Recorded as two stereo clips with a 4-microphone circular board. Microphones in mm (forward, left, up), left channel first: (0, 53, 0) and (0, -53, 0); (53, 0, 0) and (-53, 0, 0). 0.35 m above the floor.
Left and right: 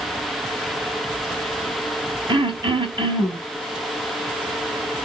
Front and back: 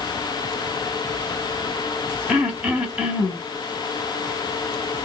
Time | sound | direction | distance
2.3 | throat clearing | 110° right | 2.5 m